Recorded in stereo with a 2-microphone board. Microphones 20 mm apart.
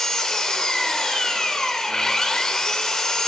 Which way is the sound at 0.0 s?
35° left (ahead or behind).